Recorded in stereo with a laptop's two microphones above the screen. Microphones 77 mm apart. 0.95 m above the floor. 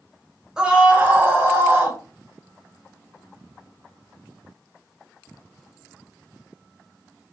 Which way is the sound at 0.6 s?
10° right (ahead or behind).